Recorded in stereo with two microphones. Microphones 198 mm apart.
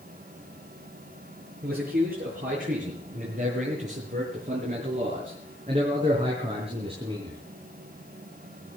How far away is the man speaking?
About 8.5 m.